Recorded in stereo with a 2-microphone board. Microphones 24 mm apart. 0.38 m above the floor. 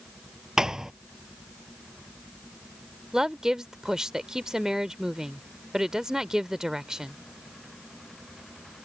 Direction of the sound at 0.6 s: 25° right (ahead or behind).